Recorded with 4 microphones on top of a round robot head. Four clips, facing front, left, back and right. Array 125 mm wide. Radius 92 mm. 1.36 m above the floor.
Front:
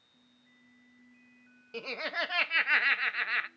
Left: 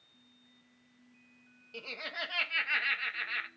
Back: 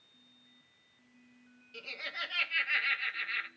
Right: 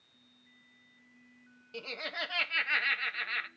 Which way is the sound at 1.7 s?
10° right.